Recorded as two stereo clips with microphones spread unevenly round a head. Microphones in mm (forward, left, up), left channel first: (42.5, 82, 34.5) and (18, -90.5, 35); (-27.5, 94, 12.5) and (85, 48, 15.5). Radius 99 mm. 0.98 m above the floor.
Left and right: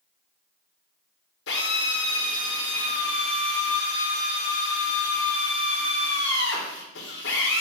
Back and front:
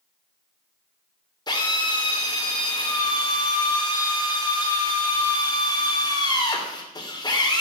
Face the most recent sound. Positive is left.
turn(degrees=105)